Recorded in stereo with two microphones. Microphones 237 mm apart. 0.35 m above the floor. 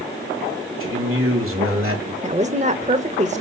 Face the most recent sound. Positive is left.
turn(degrees=-30)  # may be behind; listen again after turning